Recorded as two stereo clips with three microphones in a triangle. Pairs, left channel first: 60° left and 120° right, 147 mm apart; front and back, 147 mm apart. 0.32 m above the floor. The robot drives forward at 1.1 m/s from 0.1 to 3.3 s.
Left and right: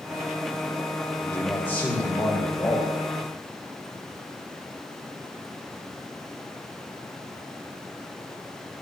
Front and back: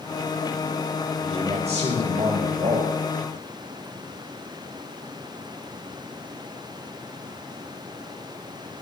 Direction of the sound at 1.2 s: 135° left.